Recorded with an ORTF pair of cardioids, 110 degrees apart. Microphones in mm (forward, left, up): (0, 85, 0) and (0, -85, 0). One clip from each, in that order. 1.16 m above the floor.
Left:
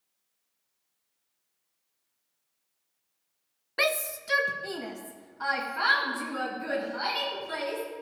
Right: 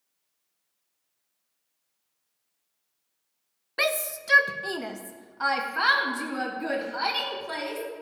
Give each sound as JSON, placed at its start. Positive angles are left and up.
{"t": 3.8, "sound": "a shout", "azimuth_deg": 5, "distance_m": 0.5}